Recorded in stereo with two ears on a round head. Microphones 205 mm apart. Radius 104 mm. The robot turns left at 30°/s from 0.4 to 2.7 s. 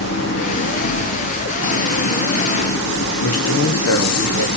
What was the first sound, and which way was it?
An engine running, 125° left.